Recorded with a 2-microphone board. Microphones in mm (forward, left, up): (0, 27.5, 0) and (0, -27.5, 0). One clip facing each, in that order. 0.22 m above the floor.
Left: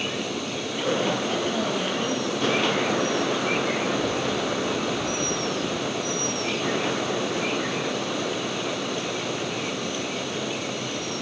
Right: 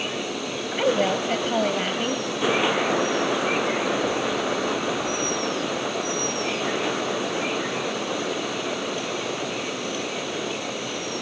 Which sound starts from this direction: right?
A woman speaking, at 0.7 s.